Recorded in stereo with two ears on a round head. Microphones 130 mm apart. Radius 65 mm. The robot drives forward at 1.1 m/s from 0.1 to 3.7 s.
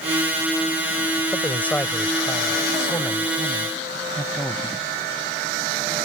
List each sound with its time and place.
1.3 s a man speaking: 10° left (ahead or behind); by 4.7 s 5° left (ahead or behind)